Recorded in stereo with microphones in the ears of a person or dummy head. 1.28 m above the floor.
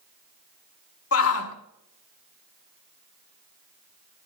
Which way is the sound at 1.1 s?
85° left.